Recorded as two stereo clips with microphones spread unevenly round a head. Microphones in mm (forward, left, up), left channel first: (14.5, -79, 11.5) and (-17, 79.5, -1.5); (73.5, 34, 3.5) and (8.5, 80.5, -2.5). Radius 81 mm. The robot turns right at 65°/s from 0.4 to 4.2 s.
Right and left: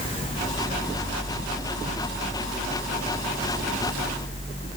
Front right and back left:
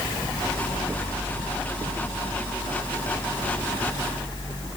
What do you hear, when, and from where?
Only background noise.